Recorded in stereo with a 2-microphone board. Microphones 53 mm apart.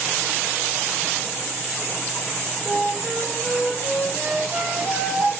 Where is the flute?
35° right (ahead or behind), 3 m.